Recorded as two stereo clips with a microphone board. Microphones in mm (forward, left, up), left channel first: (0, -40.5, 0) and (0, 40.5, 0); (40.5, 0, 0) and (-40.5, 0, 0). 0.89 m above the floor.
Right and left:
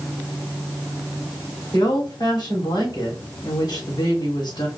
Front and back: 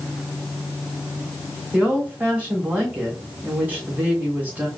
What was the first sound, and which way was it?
A woman speaking, 110° right.